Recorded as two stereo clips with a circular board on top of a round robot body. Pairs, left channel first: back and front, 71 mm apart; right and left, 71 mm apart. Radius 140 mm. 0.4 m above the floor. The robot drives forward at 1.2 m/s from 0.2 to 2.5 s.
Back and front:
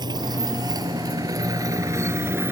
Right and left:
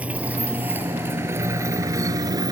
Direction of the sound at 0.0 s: 20° left.